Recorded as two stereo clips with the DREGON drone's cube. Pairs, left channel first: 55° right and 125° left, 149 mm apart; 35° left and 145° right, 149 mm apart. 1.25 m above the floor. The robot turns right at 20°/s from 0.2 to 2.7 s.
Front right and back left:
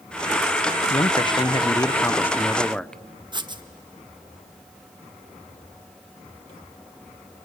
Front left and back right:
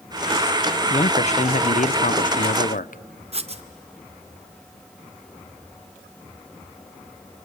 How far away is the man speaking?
About 0.6 m.